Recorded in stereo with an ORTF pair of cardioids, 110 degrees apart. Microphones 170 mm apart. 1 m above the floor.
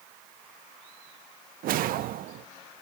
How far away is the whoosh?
About 0.6 m.